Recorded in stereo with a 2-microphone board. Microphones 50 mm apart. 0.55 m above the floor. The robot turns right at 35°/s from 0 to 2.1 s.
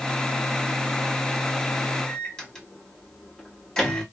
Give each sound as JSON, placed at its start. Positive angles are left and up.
{"t": 2.1, "sound": "a microwave", "side_deg": 10, "distance_m": 1.1}